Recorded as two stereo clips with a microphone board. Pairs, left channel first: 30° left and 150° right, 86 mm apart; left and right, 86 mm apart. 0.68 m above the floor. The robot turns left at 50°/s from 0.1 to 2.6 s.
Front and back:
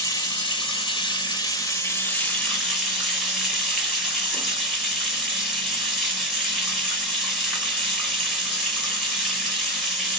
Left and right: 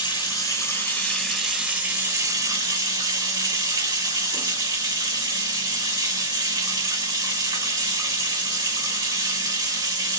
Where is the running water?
65° left, 1.9 m; by 10.2 s 60° right, 1.9 m.